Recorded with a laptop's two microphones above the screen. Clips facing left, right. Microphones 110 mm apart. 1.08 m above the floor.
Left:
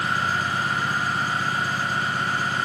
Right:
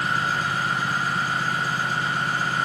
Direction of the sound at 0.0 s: 90° left.